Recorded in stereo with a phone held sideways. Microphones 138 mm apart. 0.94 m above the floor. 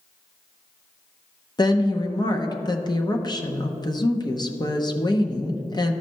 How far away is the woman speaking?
About 0.7 m.